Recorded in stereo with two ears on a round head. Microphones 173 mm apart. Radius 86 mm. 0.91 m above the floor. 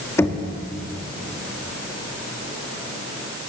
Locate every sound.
0.2 s knocking: 15° left (ahead or behind), 1.5 m